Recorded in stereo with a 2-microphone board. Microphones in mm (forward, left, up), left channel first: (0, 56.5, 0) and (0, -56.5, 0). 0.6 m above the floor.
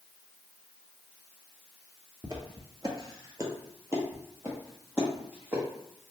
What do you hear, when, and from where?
2.2 s footsteps: 40° right (ahead or behind), 0.7 m; by 5.6 s 10° right (ahead or behind), 1.8 m